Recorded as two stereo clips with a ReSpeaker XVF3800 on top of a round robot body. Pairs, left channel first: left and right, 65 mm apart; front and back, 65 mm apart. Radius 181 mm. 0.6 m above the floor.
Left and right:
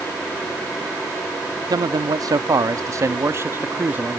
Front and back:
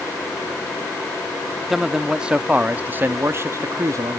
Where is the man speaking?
95° right; by 4.2 s 155° right.